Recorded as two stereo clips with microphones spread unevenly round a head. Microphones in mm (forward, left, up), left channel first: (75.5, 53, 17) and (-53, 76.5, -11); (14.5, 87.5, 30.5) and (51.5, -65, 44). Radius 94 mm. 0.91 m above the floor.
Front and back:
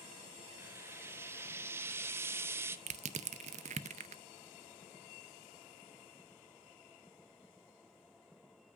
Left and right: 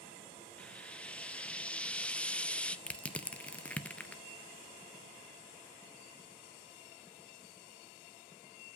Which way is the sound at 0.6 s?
170° left.